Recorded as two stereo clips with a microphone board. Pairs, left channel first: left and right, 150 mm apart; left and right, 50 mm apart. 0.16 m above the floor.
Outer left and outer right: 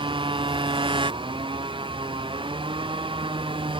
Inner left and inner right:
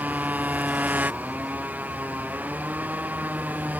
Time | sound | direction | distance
0.0 | a motorcycle | 35° right (ahead or behind) | ?